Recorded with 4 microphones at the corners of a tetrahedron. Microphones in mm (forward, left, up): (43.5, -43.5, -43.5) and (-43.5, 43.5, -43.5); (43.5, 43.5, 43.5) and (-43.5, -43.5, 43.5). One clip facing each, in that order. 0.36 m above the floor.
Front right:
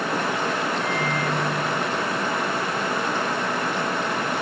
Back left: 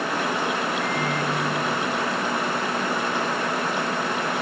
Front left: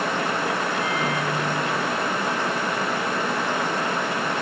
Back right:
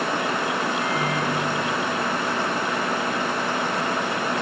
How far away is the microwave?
About 5.5 m.